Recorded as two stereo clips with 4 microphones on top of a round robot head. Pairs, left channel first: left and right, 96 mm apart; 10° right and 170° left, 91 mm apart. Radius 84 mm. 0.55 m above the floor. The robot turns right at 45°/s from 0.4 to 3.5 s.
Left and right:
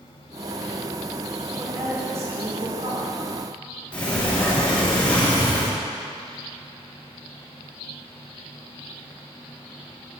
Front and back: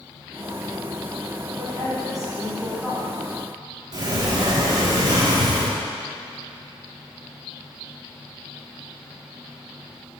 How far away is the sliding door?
About 1.9 m.